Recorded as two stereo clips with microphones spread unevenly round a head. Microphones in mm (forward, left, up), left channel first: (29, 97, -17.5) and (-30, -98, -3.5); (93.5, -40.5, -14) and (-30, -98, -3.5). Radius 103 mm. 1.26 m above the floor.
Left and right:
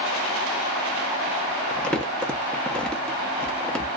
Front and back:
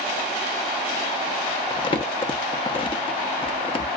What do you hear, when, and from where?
1.7 s crumpling: 15° right, 0.7 m